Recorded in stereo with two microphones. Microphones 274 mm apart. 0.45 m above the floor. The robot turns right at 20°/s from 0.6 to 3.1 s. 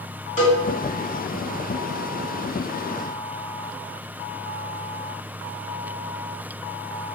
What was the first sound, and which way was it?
A cowbell, 30° left (ahead or behind).